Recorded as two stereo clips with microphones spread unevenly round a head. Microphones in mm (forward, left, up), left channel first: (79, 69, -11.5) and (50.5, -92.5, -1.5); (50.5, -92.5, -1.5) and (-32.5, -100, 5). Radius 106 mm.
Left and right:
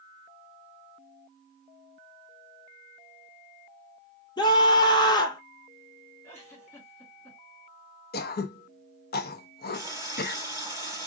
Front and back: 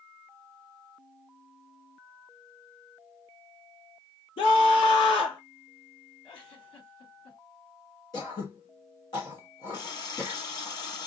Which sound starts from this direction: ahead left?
Throat clearing, at 8.1 s.